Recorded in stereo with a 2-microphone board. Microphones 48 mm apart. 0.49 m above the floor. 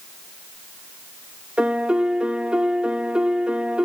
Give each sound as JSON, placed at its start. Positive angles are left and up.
{"t": 1.6, "sound": "a piano", "side_deg": -25, "distance_m": 1.0}